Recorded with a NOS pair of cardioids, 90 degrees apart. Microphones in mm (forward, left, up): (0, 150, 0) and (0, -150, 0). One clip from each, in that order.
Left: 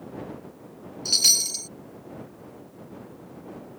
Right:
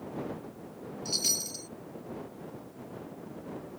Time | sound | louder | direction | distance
1.1 | a chime | left 10 dB | 60° left | ?